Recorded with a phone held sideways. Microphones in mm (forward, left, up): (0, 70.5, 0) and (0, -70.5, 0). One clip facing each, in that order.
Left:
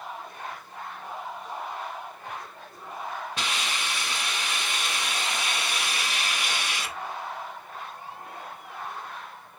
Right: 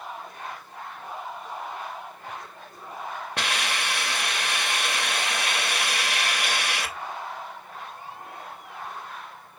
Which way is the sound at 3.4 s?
65° right (ahead or behind).